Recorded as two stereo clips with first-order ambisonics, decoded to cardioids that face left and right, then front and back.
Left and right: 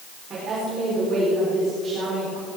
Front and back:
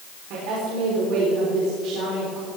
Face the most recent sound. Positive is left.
turn(degrees=-155)